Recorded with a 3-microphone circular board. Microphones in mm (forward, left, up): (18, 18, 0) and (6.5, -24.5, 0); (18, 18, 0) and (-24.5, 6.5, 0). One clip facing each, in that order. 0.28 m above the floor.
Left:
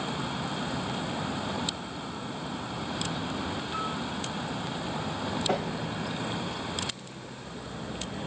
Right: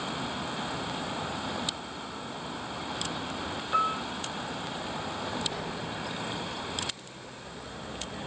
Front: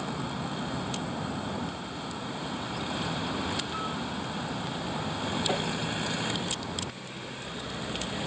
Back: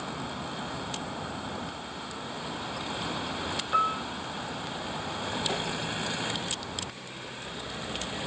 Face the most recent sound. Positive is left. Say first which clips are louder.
# left 7 dB, front 3 dB
turn(degrees=95)